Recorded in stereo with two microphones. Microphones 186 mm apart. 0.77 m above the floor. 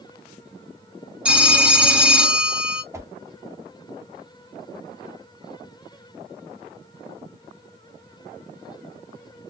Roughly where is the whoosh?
Centre.